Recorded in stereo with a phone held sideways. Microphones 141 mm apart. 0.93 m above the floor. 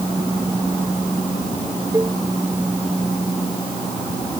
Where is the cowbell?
20° right (ahead or behind).